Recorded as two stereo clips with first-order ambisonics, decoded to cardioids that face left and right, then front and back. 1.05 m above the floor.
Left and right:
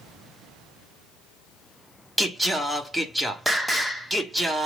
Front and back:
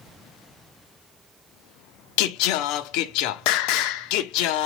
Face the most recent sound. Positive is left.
turn(degrees=-5)